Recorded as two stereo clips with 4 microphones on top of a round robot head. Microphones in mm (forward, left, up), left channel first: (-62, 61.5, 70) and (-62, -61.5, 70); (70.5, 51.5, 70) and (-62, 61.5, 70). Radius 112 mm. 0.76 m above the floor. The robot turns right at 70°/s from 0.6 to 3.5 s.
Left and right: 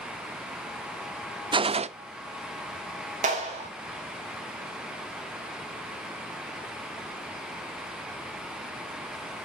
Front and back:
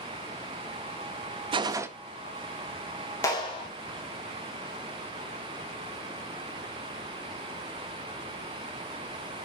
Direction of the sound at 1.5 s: 140° right.